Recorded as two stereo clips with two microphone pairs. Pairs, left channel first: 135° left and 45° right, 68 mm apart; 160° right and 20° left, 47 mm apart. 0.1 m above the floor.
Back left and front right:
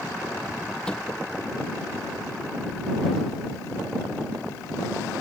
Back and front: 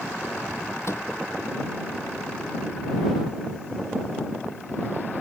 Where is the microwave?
150° right.